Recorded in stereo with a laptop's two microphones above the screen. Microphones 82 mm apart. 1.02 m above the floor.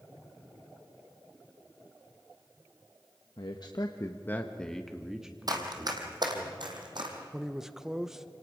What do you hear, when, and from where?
3.4 s a man speaking: 70° left (ahead or behind), 1.2 m; by 6.5 s 20° right (ahead or behind), 3.5 m
5.5 s running footsteps: 50° right (ahead or behind), 2.5 m; by 7.2 s 65° right (ahead or behind), 3.5 m
7.3 s a man speaking: 5° right (ahead or behind), 0.8 m